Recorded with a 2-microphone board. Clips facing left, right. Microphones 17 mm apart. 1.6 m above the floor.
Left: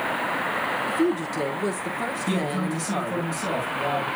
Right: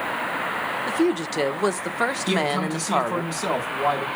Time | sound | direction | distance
0.9 | a woman speaking | 70° right (ahead or behind) | 1.1 m
2.3 | a man speaking | 70° right (ahead or behind) | 4.5 m